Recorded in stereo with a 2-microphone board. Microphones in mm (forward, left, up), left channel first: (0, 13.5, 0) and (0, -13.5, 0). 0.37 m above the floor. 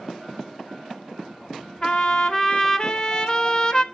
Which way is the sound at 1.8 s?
30° left (ahead or behind).